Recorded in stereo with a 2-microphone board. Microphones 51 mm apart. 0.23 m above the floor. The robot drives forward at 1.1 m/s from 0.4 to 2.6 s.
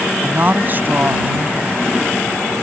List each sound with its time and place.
0.2 s a woman speaking: 40° right (ahead or behind); by 1.9 s 30° right (ahead or behind)